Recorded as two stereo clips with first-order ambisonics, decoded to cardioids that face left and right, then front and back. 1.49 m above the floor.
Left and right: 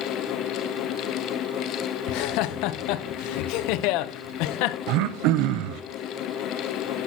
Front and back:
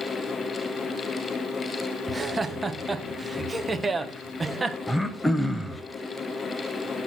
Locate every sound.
2.1 s laughter: 100° left, 0.8 m
4.9 s throat clearing: 85° right, 0.6 m